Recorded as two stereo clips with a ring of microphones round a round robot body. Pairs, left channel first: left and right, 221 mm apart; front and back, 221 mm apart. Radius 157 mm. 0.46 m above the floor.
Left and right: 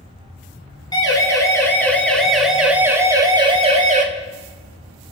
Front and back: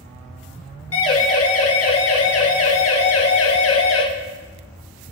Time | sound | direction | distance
0.9 | a siren | 20° left | 5 m